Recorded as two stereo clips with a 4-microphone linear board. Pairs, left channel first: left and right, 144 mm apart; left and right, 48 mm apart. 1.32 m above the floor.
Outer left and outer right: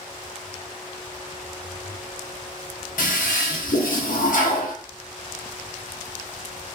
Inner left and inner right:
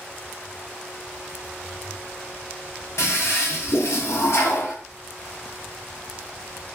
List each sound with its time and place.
3.0 s a toilet flushing: 70° left (ahead or behind), 0.6 m